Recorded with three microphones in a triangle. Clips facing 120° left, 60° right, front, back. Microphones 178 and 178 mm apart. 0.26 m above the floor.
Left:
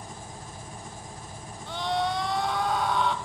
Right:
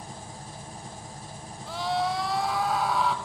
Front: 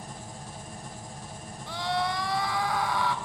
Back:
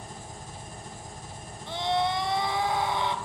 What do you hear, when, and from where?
0.0 s an engine running: straight ahead, 8.5 m
1.7 s a scream: 145° right, 1.0 m